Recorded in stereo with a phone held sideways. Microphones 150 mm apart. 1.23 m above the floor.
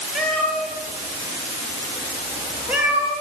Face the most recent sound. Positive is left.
turn(degrees=-10)  # may be behind; listen again after turning